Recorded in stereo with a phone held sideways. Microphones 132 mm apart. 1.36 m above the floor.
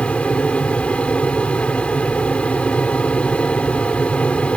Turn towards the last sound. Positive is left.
turn(degrees=10)  # may be behind; listen again after turning